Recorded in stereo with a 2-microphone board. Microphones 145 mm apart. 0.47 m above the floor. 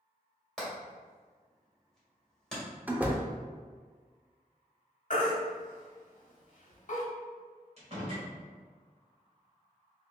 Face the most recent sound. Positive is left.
turn(degrees=-45)  # may be behind; listen again after turning